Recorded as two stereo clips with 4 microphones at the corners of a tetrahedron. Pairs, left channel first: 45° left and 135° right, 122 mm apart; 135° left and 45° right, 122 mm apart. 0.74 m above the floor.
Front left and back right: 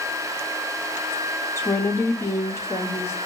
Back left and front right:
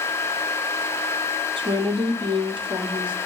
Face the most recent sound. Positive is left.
turn(degrees=-20)